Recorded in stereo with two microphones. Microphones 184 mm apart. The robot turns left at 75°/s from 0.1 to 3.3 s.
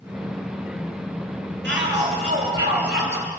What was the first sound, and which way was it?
A shout, 80° right.